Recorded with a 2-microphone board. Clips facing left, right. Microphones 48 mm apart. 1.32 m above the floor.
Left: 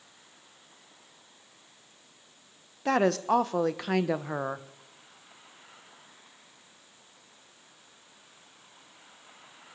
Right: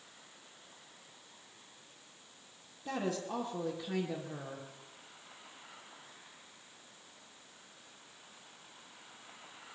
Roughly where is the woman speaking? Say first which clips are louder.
Left 12 dB; left.